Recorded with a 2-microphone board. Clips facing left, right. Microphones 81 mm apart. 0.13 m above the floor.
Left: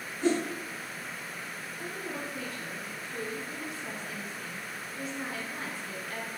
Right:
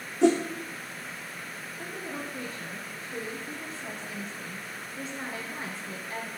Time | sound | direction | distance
0.2 | a whoosh | 85° right | 1.5 m
1.8 | a woman speaking | 30° right (ahead or behind) | 1.6 m